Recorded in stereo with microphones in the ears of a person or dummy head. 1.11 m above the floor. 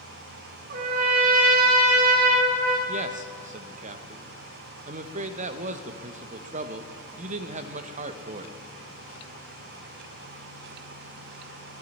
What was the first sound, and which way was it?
A trumpet, 55° right (ahead or behind).